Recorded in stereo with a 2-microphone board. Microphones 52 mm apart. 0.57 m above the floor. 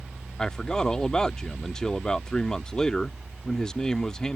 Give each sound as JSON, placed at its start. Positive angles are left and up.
{"t": 0.4, "sound": "a man speaking", "side_deg": 15}